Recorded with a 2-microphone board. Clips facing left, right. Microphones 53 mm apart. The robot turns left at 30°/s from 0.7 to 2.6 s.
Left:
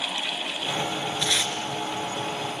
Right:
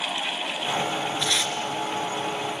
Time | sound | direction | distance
1.2 | tape being pulled | 5° right (ahead or behind) | 2.5 m